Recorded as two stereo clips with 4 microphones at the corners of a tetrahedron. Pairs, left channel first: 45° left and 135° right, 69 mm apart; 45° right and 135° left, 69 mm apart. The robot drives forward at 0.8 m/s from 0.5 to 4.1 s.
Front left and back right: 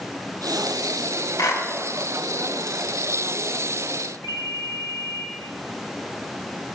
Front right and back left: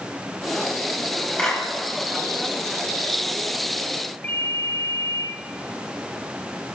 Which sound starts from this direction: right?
A ringtone, at 4.2 s.